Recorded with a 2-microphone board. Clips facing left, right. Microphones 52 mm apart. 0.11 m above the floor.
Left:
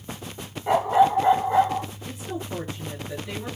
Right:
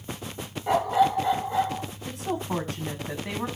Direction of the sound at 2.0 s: 70° right (ahead or behind).